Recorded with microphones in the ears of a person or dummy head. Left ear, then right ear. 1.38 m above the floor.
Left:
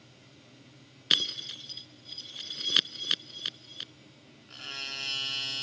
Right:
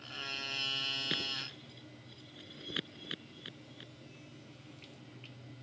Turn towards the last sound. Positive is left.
turn(degrees=45)  # may be behind; listen again after turning